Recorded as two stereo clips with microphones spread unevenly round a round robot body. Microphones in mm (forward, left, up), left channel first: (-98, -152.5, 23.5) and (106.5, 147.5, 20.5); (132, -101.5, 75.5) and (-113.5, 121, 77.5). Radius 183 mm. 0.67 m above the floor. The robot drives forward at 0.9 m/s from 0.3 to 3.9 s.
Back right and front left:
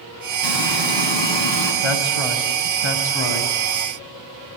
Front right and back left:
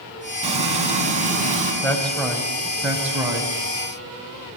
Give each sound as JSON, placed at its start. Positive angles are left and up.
{"t": 0.4, "sound": "frying", "azimuth_deg": -150, "distance_m": 6.5}
{"t": 1.8, "sound": "a man speaking", "azimuth_deg": -125, "distance_m": 5.0}